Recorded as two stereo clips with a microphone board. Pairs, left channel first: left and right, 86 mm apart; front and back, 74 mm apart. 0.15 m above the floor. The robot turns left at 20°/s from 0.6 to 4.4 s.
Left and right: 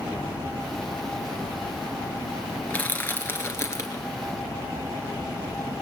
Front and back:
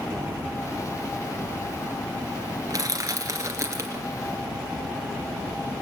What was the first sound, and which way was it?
Crushing, 160° left.